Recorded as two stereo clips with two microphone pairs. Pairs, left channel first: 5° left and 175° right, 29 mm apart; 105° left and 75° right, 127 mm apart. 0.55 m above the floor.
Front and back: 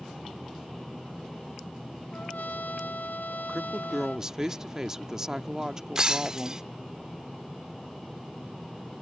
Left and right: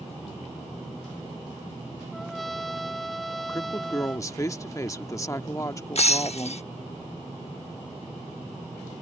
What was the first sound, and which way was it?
A trumpet, 15° left.